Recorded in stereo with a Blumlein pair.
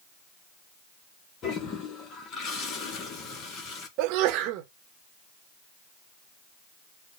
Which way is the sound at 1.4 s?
30° left.